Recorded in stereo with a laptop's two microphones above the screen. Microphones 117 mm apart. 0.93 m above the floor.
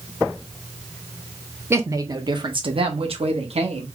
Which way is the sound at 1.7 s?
20° right (ahead or behind).